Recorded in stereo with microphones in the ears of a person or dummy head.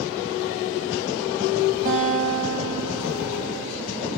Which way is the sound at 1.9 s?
40° right (ahead or behind).